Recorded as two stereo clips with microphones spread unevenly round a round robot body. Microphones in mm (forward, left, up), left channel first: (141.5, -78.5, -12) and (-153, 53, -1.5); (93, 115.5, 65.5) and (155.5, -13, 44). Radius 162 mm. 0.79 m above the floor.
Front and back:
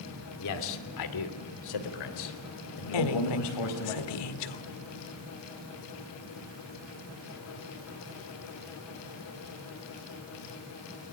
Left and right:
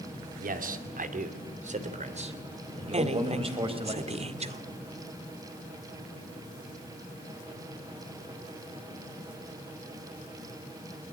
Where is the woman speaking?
25° right, 2 m.